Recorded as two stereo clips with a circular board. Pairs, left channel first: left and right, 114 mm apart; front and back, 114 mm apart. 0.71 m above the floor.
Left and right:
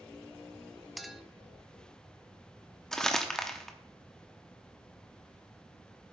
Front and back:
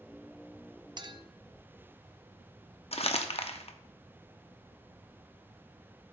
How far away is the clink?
About 0.6 m.